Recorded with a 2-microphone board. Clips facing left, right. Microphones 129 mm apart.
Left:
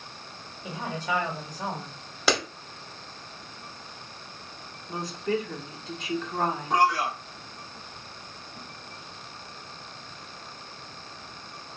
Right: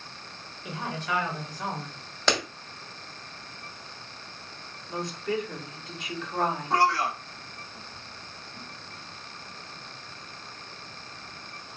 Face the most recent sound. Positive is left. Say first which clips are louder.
# left 1 dB
turn(degrees=15)  # may be behind; listen again after turning